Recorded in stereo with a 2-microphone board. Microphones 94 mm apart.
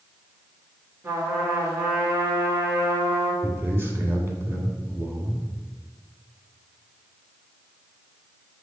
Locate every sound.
1.0 s a trumpet: 25° right (ahead or behind), 2.5 m
3.4 s a man speaking: 25° right (ahead or behind), 1.6 m